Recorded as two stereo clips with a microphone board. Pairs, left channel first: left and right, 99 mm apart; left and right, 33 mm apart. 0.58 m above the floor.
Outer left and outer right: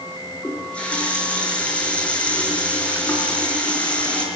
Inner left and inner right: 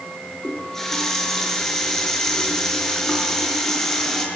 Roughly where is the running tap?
Centre.